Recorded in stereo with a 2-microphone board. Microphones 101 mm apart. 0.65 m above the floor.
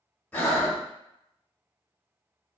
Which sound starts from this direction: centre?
Breathing, at 0.3 s.